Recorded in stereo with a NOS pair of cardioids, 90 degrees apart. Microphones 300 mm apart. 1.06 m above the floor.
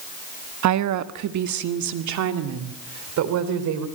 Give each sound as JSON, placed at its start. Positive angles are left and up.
{"t": 0.6, "sound": "a woman speaking", "azimuth_deg": -70, "distance_m": 1.2}